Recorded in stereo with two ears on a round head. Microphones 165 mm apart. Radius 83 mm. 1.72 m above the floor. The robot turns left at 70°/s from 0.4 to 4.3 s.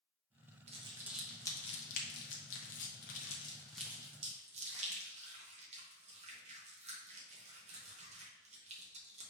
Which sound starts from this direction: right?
Crumpling, at 0.7 s.